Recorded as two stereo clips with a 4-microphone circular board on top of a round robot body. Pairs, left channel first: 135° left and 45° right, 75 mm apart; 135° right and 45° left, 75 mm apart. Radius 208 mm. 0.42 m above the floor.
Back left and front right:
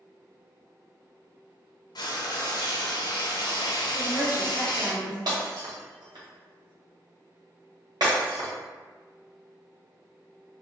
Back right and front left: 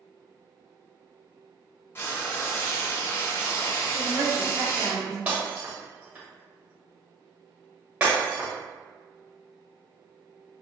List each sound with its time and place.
1.9 s frying: 165° left, 0.7 m
3.9 s a woman speaking: 15° left, 1.7 m
5.3 s breaking glass: 20° right, 2.0 m